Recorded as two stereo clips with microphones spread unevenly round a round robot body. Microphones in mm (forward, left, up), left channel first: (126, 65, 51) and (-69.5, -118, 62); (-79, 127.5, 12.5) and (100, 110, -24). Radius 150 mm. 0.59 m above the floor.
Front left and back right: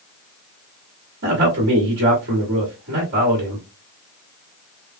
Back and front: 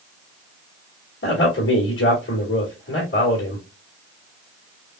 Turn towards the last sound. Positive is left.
turn(degrees=-170)